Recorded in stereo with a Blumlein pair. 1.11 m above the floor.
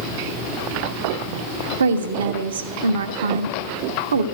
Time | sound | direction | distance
1.8 | a woman speaking | 65° right | 1.3 m